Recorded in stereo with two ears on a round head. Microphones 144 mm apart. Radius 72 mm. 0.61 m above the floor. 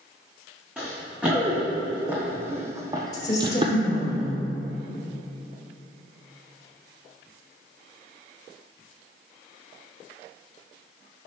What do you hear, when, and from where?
0.8 s running footsteps: 5° right (ahead or behind), 2.0 m; by 3.8 s 35° right (ahead or behind), 0.7 m
3.1 s a woman speaking: 25° left (ahead or behind), 1.8 m